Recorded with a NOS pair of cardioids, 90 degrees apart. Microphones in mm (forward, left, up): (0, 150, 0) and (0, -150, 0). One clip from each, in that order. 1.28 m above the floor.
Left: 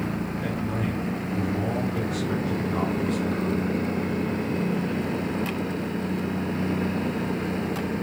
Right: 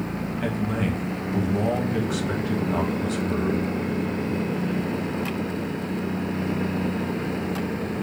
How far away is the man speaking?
About 1.7 m.